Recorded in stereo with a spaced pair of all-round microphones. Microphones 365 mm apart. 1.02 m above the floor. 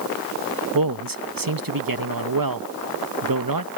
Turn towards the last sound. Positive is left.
turn(degrees=-65)  # may be behind; listen again after turning